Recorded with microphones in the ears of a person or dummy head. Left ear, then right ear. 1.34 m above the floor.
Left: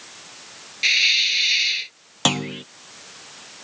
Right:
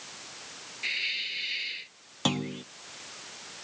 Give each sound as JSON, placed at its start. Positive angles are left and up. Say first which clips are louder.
{"t": 0.8, "sound": "a hiss", "louder": "left 14 dB", "side_deg": 45}
{"t": 2.2, "sound": "a clunk", "louder": "left 8 dB", "side_deg": 30}